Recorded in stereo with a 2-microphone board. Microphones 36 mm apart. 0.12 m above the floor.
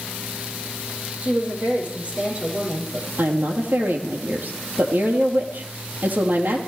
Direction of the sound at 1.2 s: 35° right (ahead or behind).